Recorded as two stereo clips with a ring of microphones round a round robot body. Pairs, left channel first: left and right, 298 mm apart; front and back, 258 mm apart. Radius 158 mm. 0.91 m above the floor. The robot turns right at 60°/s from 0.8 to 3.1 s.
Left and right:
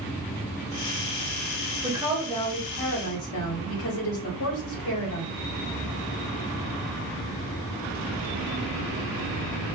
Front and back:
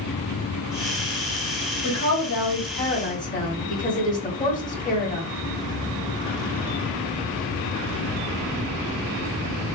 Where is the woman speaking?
20° right, 1.3 m; by 5.3 s 55° left, 1.3 m.